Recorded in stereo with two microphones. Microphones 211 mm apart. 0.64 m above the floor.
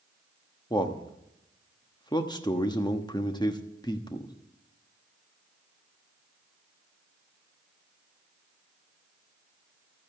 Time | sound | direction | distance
0.7 | a man speaking | 20° left (ahead or behind) | 1.1 m